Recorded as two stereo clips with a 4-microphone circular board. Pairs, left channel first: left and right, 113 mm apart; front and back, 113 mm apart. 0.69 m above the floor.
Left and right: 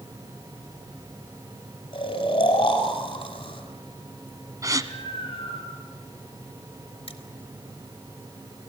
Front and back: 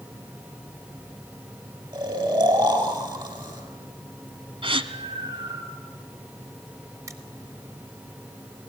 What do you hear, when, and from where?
1.9 s snoring: 130° left, 5.5 m
4.6 s a gasp: 145° right, 1.2 m
7.1 s crushing: 120° left, 2.5 m